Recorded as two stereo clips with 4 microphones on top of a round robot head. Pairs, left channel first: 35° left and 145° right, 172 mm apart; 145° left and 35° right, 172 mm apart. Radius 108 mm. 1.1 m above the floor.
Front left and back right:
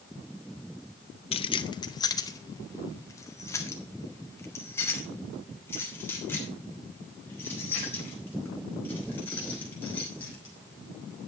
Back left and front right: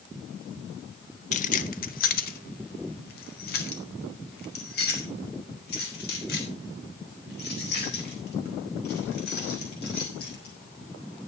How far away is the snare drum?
No snare drum in this recording.